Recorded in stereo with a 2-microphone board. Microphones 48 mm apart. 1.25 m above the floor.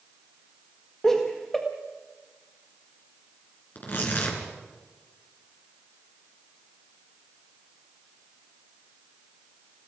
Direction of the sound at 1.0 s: 10° left (ahead or behind).